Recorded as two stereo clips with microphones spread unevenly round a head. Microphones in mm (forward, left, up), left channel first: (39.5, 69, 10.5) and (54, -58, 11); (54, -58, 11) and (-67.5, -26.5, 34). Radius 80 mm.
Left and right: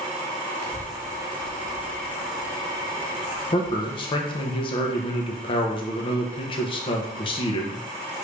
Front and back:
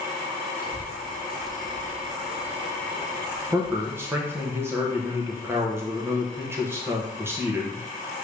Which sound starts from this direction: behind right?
A child speaking, at 0.6 s.